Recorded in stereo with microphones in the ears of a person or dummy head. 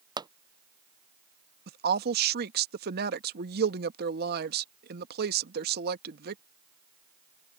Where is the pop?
20° right (ahead or behind).